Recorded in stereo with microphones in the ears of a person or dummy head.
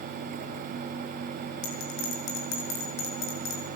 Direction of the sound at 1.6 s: 80° left.